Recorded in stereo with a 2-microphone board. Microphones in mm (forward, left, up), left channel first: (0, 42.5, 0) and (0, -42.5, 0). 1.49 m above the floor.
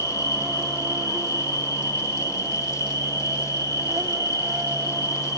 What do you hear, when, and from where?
0.0 s an insect: 45° right (ahead or behind), 1.0 m